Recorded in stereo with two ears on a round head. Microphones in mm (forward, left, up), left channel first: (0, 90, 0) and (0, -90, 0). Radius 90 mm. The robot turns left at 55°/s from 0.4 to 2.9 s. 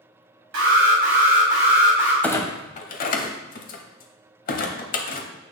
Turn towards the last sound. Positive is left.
turn(degrees=45)  # may be behind; listen again after turning